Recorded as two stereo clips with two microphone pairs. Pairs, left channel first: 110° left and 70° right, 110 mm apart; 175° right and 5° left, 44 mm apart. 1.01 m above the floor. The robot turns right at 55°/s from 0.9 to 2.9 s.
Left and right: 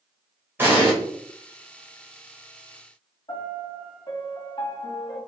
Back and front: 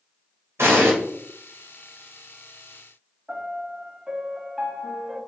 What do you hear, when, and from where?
0.6 s an explosion: 5° left, 2.5 m
3.3 s a piano: 80° left, 1.4 m